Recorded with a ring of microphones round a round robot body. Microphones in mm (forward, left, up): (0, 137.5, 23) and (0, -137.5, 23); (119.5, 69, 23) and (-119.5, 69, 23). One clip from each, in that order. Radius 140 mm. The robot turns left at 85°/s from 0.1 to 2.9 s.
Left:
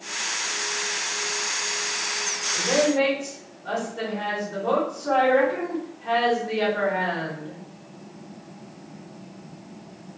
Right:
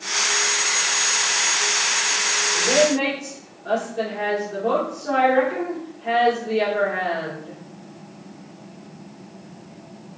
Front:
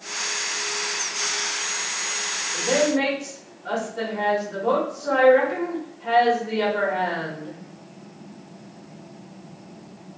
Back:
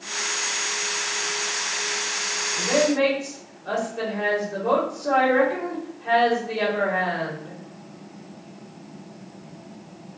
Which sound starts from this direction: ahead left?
A woman speaking, at 2.5 s.